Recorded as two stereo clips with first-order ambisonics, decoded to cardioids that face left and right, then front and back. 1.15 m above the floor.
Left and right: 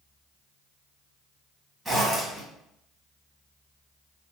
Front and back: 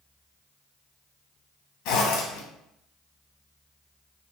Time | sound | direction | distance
1.9 | a zipper | 10° right | 0.8 m